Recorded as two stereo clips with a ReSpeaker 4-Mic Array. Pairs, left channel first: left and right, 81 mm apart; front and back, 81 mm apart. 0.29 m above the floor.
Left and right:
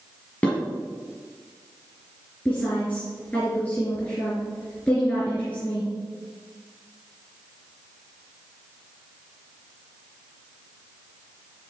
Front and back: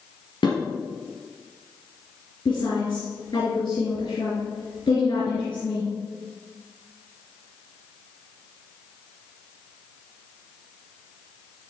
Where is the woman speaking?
20° left, 3.5 m.